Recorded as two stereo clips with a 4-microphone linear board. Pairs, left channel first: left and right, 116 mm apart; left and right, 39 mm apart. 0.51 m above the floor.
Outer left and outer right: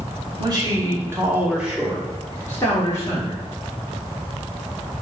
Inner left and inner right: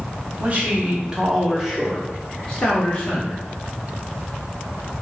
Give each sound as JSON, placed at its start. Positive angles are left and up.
{"t": 0.4, "sound": "a man speaking", "side_deg": -35, "distance_m": 1.1}